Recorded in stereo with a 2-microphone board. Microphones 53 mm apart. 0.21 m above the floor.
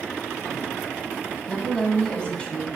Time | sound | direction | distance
1.5 | a woman speaking | 20° left (ahead or behind) | 1.0 m